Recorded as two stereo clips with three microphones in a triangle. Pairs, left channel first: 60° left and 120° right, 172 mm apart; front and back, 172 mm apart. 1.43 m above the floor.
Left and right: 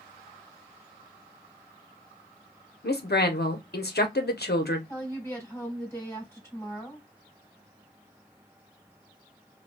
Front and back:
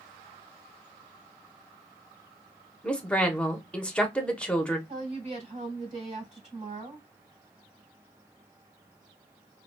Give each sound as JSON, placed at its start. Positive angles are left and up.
{"t": 2.8, "sound": "a woman speaking", "azimuth_deg": 85, "distance_m": 0.8}
{"t": 4.9, "sound": "a woman speaking", "azimuth_deg": 135, "distance_m": 2.5}